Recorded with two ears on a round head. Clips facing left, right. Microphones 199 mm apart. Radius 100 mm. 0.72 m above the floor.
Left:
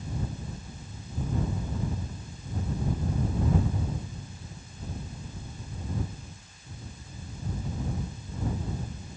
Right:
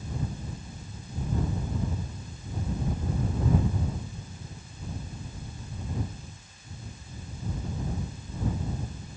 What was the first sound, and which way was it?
Only background noise.